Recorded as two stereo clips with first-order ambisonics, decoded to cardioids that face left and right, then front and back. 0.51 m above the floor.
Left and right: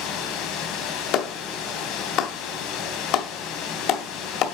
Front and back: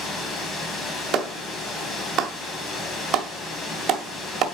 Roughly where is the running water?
Ahead left.